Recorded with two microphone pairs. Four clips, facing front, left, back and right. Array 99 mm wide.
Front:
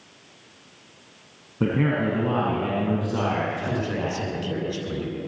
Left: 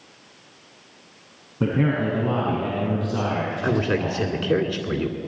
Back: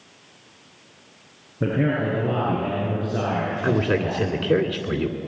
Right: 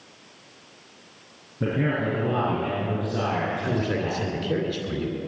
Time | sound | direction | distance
1.6 | a man speaking | 40° left | 6 m
3.6 | a man speaking | 135° left | 2.0 m